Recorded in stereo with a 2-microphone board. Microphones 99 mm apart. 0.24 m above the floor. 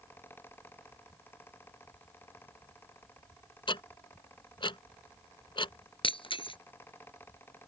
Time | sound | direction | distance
3.7 | ticking | 60° left (ahead or behind) | ?
6.0 | breaking glass | 65° left (ahead or behind) | ?